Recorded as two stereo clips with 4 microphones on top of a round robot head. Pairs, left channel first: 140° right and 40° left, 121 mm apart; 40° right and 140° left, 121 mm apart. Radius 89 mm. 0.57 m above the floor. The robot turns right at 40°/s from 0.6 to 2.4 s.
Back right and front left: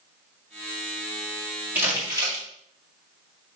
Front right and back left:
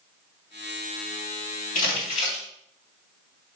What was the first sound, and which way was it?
Crumpling, 30° right.